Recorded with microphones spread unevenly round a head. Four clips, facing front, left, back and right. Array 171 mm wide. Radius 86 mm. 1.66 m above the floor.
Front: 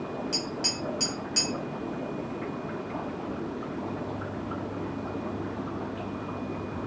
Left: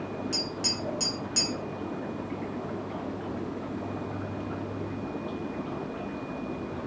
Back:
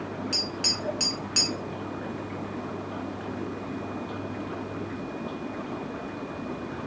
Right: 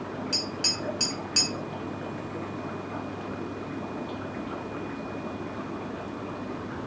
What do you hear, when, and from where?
0.3 s tapping: 145° right, 1.4 m